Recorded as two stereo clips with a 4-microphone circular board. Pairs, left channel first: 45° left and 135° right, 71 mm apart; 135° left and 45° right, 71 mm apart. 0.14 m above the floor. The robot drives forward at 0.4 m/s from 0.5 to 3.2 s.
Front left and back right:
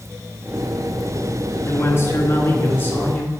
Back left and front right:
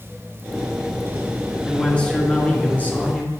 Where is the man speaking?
60° left, 1.9 m; by 3.3 s 90° left, 1.8 m.